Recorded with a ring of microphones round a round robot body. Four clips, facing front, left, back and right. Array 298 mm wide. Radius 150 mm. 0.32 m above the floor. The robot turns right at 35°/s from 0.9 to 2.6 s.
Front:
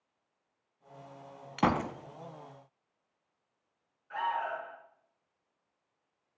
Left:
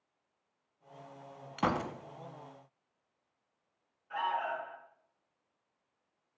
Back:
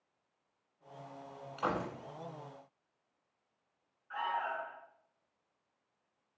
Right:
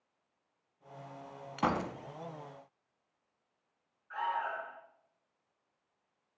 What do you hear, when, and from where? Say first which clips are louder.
1.6 s a gunshot: even, front 7 dB; straight ahead, 1.2 m; by 1.9 s 15° left, 1.2 m
4.1 s an alarm: left 1 dB, front 3 dB; 50° left, 5 m